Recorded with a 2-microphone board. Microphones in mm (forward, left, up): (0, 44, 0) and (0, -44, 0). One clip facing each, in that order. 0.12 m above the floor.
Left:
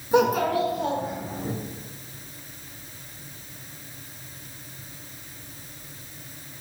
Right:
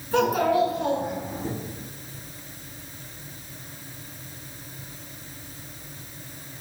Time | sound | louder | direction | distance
0.1 | a child speaking | left 1 dB | 20° left (ahead or behind) | 0.7 m